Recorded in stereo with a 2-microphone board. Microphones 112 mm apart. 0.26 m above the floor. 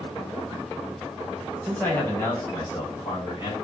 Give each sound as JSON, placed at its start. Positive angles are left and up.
{"t": 1.6, "sound": "a man speaking", "side_deg": 10, "distance_m": 1.1}